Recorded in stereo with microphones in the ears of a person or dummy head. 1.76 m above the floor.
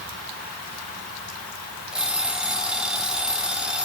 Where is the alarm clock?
5° right (ahead or behind), 3.5 m.